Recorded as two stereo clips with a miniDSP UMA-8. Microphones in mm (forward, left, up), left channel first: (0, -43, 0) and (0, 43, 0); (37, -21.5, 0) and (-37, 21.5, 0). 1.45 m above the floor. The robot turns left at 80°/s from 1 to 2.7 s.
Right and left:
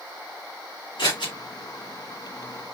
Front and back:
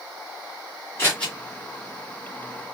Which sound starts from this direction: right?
Scissors, at 1.0 s.